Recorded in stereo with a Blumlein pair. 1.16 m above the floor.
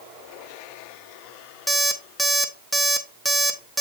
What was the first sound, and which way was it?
An alarm clock, 5° right.